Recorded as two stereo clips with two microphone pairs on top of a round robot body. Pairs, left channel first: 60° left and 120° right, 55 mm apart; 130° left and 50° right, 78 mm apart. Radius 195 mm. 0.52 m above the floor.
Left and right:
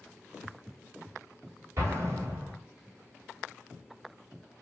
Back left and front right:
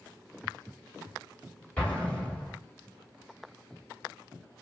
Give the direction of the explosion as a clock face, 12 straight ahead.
5 o'clock.